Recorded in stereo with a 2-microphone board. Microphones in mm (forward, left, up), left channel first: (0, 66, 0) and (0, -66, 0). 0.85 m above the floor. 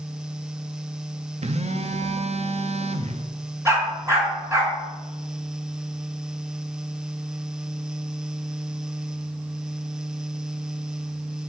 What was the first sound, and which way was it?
A phone buzzing, 55° right (ahead or behind).